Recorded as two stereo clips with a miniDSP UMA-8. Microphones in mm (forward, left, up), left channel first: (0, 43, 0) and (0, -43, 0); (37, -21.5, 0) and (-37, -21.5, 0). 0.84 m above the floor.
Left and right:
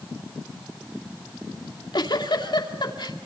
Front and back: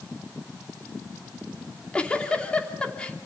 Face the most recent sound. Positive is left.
turn(degrees=75)